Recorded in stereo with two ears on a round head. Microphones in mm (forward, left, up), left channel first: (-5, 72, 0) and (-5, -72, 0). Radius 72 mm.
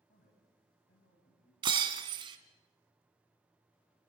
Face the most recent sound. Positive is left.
turn(degrees=-30)  # may be behind; listen again after turning